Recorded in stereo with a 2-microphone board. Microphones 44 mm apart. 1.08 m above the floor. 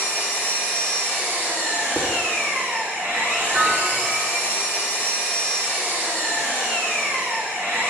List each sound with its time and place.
0.0 s an engine running: 65° right (ahead or behind), 3.5 m
2.0 s dishes clattering: 60° right (ahead or behind), 1.4 m
3.5 s a piano: 65° right (ahead or behind), 3 m